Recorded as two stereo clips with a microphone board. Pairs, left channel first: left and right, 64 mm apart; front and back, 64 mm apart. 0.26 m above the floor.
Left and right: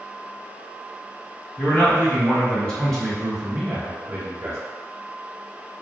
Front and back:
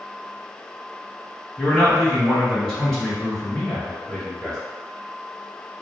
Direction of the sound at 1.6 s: 70° left.